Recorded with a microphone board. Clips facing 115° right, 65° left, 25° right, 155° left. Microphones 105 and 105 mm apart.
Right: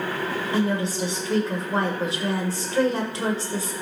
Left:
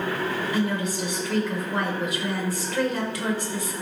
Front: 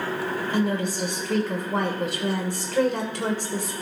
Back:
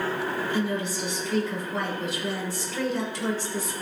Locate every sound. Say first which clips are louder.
0.5 s a woman speaking: right 5 dB, front 3 dB; 55° right, 2 m